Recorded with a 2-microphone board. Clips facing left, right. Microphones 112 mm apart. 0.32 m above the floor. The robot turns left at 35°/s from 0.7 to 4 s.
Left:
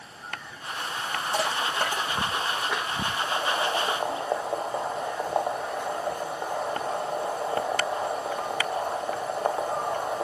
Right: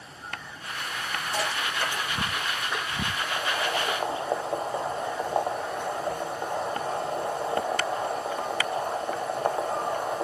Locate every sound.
1.3 s crushing: 30° left (ahead or behind), 7 m; by 2.9 s 85° left, 7 m
3.2 s boiling: 20° left (ahead or behind), 1.4 m; by 10.2 s 5° left (ahead or behind), 1.4 m